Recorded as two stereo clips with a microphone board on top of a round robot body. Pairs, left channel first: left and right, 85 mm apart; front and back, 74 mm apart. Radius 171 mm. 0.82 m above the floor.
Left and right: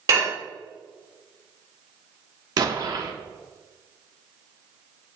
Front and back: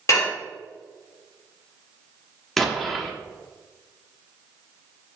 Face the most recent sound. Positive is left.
turn(degrees=-85)